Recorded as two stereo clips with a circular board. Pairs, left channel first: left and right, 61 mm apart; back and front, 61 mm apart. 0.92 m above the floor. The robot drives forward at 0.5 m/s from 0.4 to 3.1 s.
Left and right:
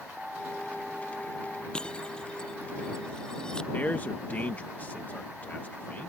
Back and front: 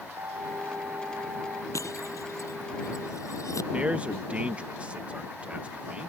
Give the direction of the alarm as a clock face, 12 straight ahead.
12 o'clock.